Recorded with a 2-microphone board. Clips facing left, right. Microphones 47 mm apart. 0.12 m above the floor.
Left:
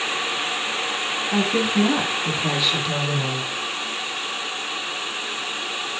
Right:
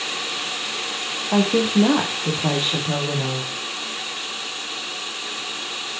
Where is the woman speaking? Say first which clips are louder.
Right 3 dB; 55° right (ahead or behind), 4 m; by 3.5 s 30° right (ahead or behind), 4.5 m.